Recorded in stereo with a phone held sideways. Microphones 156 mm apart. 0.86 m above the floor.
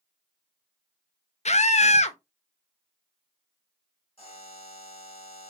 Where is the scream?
45° left (ahead or behind), 0.5 m.